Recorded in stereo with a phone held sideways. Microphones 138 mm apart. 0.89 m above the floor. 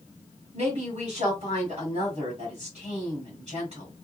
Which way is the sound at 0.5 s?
50° right (ahead or behind).